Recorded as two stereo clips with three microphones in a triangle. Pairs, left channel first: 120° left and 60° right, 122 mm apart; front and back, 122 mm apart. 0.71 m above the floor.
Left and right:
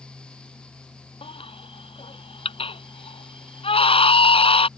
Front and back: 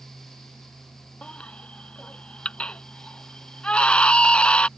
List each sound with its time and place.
1.2 s a baby crying: 80° left